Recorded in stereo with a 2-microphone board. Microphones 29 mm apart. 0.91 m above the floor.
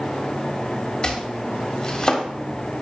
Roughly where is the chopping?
Left.